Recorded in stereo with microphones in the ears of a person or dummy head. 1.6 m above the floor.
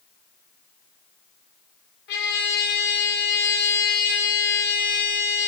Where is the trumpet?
60° left (ahead or behind), 6.5 m.